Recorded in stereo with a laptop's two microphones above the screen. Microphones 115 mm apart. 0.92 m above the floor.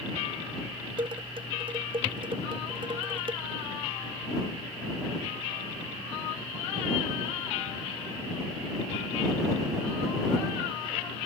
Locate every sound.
1.0 s dishes clattering: 50° right (ahead or behind)